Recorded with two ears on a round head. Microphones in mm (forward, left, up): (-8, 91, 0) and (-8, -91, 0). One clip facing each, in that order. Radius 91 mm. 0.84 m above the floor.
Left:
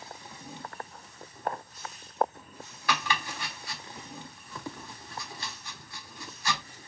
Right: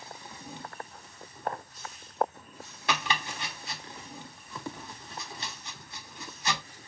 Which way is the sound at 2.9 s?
20° right (ahead or behind).